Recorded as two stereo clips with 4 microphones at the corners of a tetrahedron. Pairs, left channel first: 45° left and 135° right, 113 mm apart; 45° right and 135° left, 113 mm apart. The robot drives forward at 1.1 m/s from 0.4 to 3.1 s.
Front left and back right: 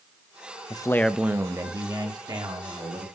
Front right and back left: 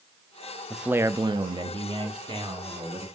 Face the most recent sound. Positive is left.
turn(degrees=175)